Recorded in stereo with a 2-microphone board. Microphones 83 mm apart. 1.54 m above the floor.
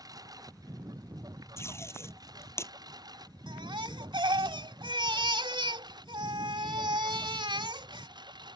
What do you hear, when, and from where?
0.0 s a lawn mower: 45° right (ahead or behind); by 8.6 s 60° right (ahead or behind)
1.6 s tape being pulled: 30° left (ahead or behind)
3.5 s a baby crying: 75° right (ahead or behind)